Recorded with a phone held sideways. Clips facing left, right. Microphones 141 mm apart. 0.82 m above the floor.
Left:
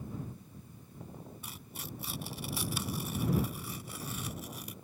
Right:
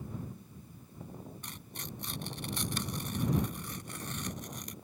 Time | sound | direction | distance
1.4 | tearing paper | 5° left (ahead or behind) | ?